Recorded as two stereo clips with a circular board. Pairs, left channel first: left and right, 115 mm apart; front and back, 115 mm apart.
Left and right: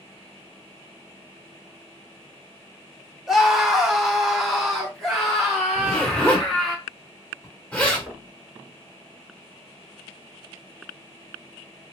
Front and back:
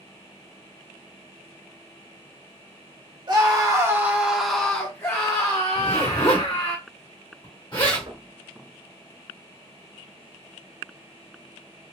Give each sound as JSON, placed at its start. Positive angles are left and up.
{"t": 3.3, "sound": "a scream", "azimuth_deg": -175, "distance_m": 1.1}
{"t": 5.8, "sound": "a zipper", "azimuth_deg": 15, "distance_m": 1.6}
{"t": 8.1, "sound": "knocking", "azimuth_deg": -170, "distance_m": 1.1}